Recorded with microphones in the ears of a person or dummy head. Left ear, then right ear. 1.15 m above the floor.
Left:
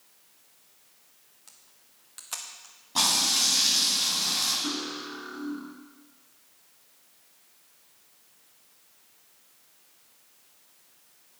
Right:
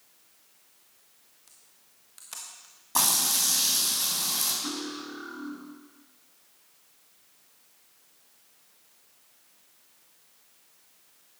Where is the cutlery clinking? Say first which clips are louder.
Left 2 dB; 5° right (ahead or behind), 1.1 m.